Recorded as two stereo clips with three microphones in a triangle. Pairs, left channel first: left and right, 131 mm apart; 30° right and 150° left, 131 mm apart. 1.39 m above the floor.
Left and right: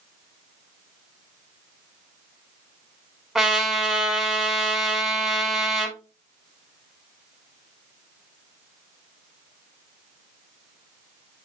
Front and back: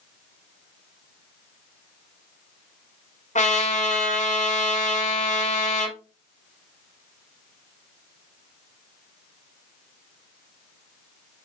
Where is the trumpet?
Straight ahead, 4.5 m.